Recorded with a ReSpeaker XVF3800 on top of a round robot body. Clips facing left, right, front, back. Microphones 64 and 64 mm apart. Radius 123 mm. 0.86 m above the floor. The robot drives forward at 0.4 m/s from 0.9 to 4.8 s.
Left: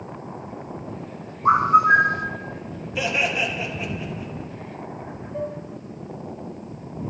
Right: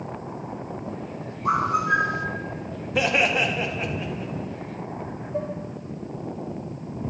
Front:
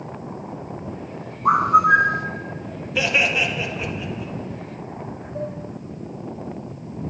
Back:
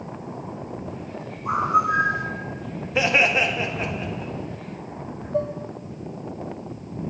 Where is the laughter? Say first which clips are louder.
Right 2 dB, back 1 dB; 125° right, 1.6 m; by 4.3 s 135° right, 2.0 m.